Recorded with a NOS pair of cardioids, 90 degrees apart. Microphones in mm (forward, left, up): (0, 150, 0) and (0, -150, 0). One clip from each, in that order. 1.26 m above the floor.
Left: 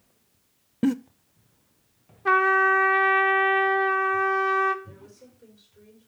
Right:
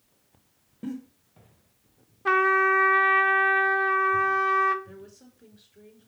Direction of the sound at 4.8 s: 45° right.